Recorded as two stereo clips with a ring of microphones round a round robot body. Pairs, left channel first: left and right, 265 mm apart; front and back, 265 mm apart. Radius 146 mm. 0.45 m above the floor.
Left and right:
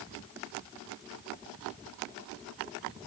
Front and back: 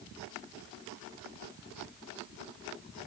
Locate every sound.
Only background noise.